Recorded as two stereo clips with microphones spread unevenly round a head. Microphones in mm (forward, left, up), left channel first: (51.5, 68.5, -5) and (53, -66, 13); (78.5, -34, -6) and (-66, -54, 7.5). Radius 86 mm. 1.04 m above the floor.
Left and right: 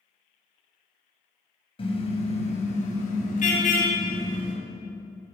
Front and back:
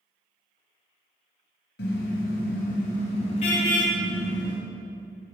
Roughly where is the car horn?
Ahead left.